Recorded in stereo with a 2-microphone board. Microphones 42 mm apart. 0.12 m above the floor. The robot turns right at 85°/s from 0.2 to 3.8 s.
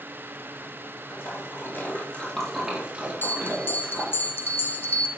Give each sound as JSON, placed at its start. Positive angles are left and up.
{"t": 1.1, "sound": "a splash", "side_deg": 50, "distance_m": 3.5}
{"t": 3.2, "sound": "a bell", "azimuth_deg": 60, "distance_m": 1.3}